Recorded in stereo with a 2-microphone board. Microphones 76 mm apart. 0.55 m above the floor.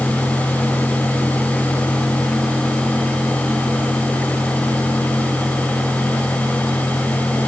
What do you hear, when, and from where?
Only background noise.